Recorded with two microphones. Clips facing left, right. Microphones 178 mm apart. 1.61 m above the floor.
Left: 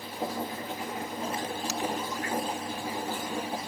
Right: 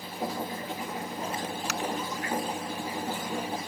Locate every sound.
1.7 s tapping: 75° right (ahead or behind)